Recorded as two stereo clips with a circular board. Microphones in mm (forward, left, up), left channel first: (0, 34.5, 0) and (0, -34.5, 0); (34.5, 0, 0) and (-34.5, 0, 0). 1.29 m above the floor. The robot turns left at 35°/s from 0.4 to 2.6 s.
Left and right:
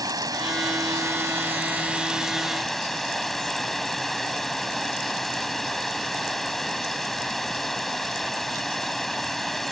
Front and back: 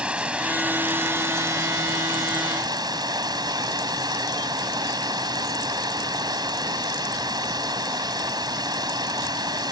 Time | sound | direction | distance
0.0 | running water | 105° right | ?